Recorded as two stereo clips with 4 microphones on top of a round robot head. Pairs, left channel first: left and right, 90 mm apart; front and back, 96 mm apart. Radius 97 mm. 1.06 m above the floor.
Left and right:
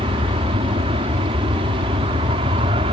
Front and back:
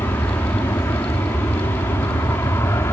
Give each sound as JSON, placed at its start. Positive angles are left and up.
{"t": 0.0, "sound": "an aircraft", "azimuth_deg": -75}